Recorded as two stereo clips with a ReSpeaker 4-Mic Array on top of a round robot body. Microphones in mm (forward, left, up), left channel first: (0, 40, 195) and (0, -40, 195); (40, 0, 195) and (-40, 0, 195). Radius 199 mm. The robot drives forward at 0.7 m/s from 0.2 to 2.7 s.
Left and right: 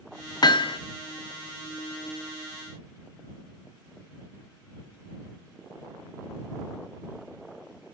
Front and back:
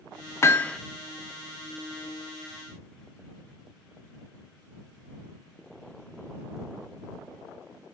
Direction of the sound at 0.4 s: 55° left.